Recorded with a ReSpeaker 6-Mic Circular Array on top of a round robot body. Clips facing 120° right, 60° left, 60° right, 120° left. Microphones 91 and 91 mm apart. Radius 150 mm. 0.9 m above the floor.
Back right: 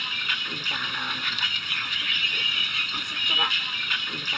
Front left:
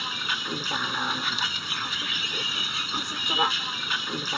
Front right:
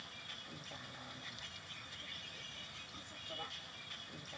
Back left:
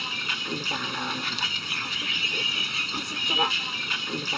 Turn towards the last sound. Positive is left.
turn(degrees=125)